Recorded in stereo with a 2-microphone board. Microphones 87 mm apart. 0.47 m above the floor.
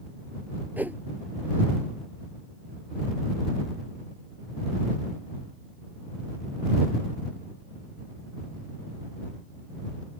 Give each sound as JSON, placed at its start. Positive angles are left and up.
{"t": 0.8, "sound": "a whoosh", "side_deg": -20}